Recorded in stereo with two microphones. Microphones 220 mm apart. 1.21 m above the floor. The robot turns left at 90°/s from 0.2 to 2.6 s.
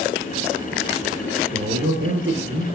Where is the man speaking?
50° right, 1.1 m; by 2.6 s 150° right, 1.1 m.